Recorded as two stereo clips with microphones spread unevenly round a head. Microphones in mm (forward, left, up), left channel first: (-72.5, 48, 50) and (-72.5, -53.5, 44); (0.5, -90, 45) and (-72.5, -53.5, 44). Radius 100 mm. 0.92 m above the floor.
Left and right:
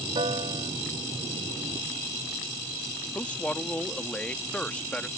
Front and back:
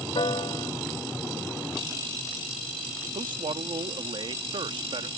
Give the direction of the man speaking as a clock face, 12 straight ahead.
6 o'clock.